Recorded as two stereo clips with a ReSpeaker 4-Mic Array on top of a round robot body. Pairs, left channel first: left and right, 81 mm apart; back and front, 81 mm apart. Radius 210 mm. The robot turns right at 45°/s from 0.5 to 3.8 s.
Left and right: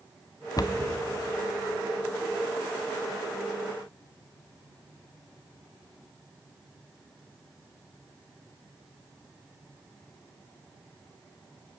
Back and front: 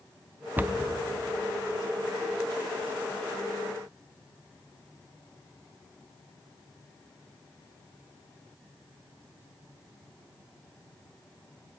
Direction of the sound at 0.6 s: 65° left.